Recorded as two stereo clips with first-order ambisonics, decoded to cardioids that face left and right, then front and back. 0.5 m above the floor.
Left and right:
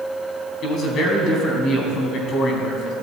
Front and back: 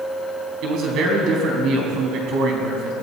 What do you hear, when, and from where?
0.6 s a man speaking: 140° left, 3.5 m